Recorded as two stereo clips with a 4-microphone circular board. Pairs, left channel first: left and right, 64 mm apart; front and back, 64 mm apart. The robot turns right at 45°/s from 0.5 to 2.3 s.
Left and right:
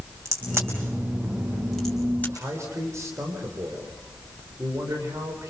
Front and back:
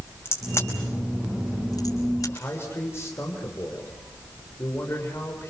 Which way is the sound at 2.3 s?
50° right.